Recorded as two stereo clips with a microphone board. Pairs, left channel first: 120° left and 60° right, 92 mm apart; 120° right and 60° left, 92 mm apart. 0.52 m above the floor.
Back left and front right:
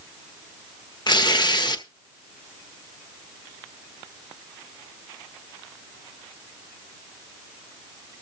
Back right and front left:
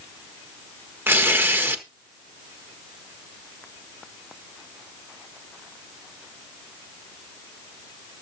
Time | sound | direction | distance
1.1 | tearing paper | 120° left | 1.2 m